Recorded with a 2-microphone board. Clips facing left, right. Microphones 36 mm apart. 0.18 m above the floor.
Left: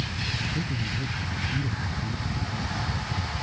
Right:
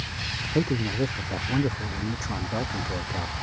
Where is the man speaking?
80° right.